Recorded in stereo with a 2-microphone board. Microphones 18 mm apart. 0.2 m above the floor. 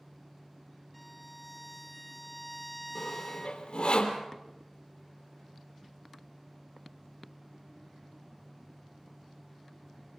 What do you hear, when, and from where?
0.9 s a violin: 10° left (ahead or behind), 0.6 m
3.0 s sawing: 65° left (ahead or behind), 3 m